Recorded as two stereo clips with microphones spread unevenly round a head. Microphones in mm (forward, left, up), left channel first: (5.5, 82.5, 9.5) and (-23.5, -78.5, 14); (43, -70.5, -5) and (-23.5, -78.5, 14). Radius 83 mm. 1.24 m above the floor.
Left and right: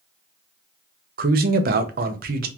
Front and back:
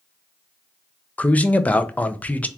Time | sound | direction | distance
1.2 | a man speaking | 60° right | 0.6 m